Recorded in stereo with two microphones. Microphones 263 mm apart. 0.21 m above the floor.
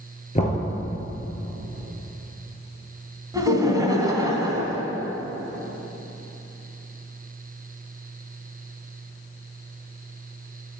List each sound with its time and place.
0.3 s knocking: 30° left (ahead or behind), 2 m
3.3 s laughter: 15° right (ahead or behind), 1.5 m